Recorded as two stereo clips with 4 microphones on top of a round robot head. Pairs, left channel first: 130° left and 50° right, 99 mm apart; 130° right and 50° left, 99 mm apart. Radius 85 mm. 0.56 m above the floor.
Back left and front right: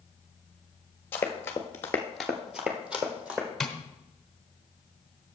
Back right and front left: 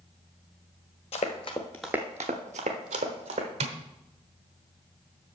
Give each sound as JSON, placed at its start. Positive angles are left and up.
{"t": 1.1, "sound": "running footsteps", "azimuth_deg": -160, "distance_m": 1.0}
{"t": 3.6, "sound": "tapping", "azimuth_deg": 45, "distance_m": 1.0}